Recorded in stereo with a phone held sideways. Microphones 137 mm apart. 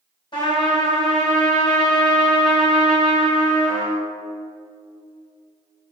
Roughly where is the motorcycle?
I don't hear a motorcycle.